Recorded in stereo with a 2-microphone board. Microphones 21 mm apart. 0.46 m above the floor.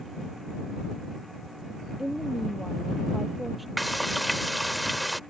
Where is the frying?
Centre (ahead or behind).